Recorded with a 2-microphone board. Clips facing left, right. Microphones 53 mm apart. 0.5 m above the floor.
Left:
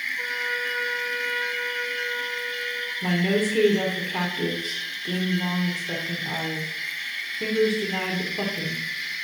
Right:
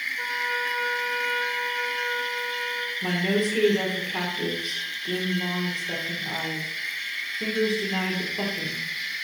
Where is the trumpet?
10° left (ahead or behind), 3.5 m.